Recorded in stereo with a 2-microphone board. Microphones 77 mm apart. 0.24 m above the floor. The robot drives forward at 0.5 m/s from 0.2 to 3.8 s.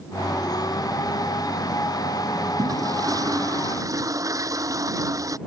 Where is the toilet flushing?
50° right (ahead or behind); by 5.4 s 45° right (ahead or behind).